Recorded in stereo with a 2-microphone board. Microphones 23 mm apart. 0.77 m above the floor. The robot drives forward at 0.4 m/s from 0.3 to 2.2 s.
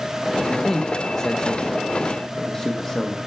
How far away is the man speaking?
About 0.5 m.